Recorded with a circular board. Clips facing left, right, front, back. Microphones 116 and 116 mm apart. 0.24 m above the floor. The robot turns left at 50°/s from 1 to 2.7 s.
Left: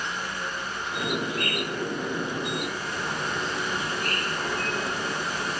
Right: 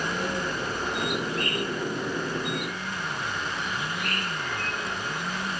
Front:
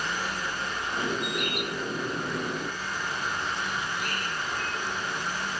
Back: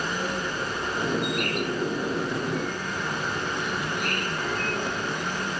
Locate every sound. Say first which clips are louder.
0.0 s an insect: right 4 dB, back 3 dB; 130° right, 3.5 m; by 5.6 s 145° left, 3.5 m